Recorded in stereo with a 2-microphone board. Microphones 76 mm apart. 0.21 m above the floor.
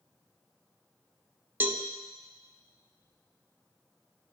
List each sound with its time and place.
1.6 s a cowbell: 30° right (ahead or behind), 0.5 m